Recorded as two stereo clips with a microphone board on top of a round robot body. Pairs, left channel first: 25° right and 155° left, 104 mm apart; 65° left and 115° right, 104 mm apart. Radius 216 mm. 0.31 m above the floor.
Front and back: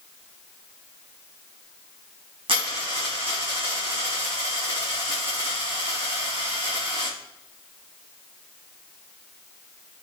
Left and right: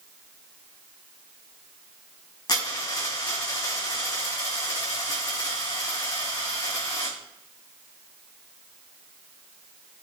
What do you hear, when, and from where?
2.5 s a dropped coin: 115° left, 4 m